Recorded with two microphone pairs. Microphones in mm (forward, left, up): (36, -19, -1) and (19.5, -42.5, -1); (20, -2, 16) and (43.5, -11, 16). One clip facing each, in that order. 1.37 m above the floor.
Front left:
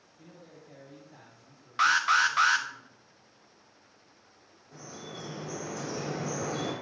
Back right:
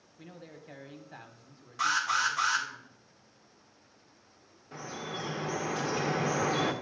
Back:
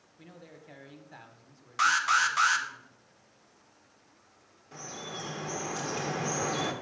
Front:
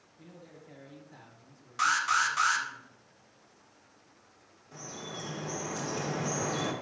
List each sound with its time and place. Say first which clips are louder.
0.2 s a man speaking: back right 3 dB, back 1 dB; 145° right, 1.2 m
1.8 s an alarm: front left 5 dB, back 2 dB; 85° left, 0.7 m
4.7 s dripping: back right 5 dB, back 1 dB; 130° right, 1.0 m